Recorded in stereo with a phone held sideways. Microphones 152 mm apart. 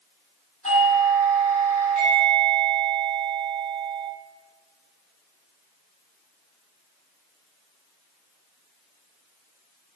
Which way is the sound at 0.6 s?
50° left (ahead or behind).